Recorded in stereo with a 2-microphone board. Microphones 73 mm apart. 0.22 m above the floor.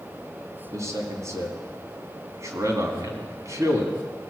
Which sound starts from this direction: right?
A man speaking, at 0.7 s.